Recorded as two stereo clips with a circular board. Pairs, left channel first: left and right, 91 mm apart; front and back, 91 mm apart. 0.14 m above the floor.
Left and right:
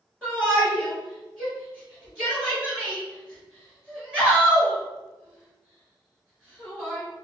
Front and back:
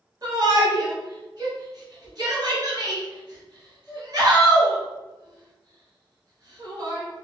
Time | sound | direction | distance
0.2 | a shout | straight behind | 1.3 m